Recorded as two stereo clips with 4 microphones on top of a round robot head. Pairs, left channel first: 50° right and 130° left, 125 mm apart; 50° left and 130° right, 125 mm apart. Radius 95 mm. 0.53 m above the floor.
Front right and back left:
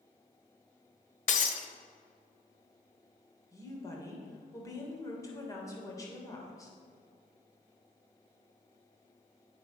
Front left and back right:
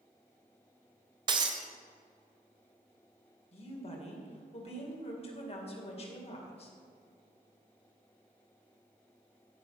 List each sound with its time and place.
1.3 s breaking glass: 75° right, 1.1 m
3.5 s a woman speaking: 15° left, 2.5 m